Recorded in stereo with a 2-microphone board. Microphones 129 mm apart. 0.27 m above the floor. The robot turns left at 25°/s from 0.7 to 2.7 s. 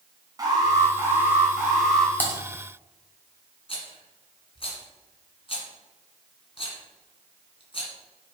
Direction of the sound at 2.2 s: 15° left (ahead or behind).